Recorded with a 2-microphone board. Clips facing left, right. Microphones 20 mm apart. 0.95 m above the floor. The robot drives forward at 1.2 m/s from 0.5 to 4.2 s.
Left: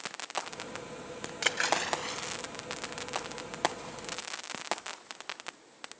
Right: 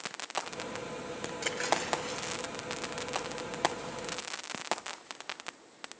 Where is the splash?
40° left (ahead or behind), 1.1 m; by 2.3 s 20° left (ahead or behind), 1.8 m.